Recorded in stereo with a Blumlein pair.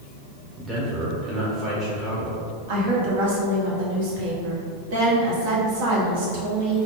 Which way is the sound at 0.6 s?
15° right.